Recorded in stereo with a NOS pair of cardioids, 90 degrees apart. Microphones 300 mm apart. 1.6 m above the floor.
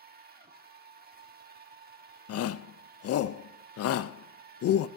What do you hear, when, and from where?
0.0 s a machine running: 30° right, 1.4 m
2.3 s a shout: 55° left, 0.6 m